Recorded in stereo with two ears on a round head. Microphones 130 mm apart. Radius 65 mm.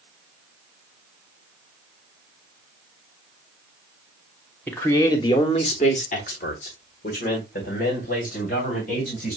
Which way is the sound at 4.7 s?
10° left (ahead or behind).